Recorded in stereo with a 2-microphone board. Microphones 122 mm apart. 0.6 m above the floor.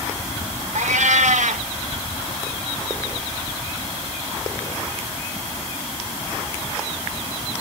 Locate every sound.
0.8 s a cat meowing: 75° right (ahead or behind), 0.8 m